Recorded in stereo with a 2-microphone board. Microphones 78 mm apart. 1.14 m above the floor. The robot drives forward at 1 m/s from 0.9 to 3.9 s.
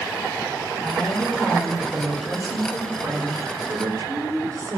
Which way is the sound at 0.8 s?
25° right (ahead or behind).